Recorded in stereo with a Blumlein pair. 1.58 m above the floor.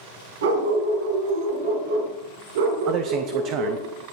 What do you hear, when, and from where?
0.4 s a dog barking: 65° right, 4.5 m; by 3.9 s 55° right, 8.5 m
2.9 s a man speaking: 35° right, 0.9 m